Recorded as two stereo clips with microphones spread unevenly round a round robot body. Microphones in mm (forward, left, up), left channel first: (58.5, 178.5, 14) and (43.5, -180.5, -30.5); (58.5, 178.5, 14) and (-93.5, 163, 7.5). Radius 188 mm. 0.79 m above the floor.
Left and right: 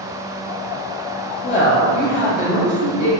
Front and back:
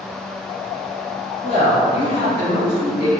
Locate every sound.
1.4 s a woman speaking: 40° left, 1.1 m